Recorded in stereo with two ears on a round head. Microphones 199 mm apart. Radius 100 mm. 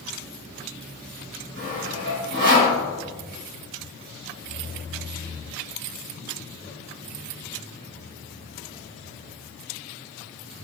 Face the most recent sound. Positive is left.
turn(degrees=-50)  # may be behind; listen again after turning